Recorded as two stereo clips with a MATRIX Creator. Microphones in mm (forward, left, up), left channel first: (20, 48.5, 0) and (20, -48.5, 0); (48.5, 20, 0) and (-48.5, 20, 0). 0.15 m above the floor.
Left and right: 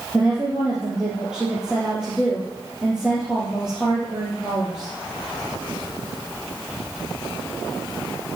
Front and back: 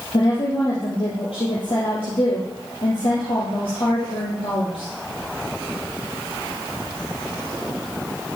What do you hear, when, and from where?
0.1 s a woman speaking: 5° right, 3.5 m